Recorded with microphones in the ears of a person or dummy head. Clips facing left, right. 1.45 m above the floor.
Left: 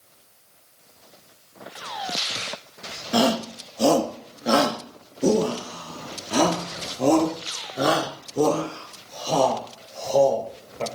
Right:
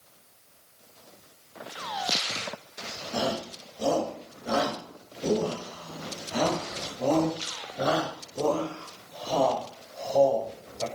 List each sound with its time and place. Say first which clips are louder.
3.1 s a shout: left 9 dB; 80° left, 2.5 m